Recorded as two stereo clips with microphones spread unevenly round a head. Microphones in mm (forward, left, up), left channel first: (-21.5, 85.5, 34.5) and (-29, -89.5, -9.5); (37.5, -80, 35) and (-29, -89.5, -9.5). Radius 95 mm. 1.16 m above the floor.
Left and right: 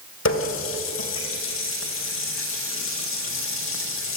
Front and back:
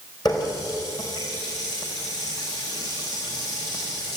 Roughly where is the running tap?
Ahead left.